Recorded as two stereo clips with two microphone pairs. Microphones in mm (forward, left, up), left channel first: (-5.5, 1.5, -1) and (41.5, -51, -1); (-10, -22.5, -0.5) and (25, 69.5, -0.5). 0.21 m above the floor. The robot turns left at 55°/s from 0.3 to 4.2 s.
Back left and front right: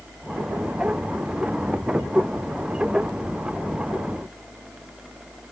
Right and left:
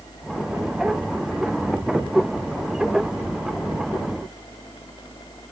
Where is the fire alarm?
I don't hear a fire alarm.